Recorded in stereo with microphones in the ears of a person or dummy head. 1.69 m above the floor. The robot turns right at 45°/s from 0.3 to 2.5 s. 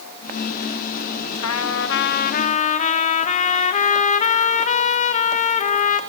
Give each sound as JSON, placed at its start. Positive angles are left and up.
{"t": 1.4, "sound": "a trumpet", "azimuth_deg": 90, "distance_m": 0.9}